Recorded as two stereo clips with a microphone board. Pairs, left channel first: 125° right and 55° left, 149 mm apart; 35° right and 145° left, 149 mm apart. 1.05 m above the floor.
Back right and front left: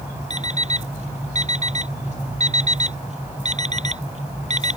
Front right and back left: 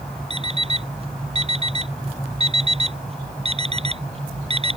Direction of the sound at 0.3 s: 95° left.